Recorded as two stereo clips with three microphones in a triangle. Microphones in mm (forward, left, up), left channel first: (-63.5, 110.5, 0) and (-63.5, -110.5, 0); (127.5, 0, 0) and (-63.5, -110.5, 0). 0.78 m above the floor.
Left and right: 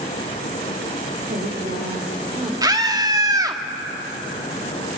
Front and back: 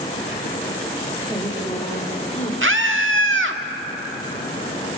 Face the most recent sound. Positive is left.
turn(degrees=-160)